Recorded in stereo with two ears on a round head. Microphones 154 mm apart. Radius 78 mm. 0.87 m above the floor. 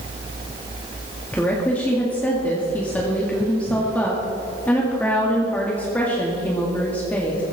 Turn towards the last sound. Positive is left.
turn(degrees=10)  # may be behind; listen again after turning